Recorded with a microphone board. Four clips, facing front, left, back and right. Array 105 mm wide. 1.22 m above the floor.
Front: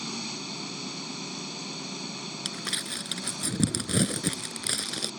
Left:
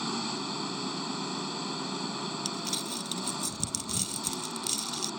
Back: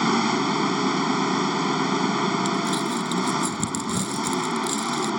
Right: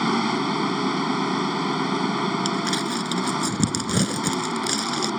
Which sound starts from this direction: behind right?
An engine running, at 0.0 s.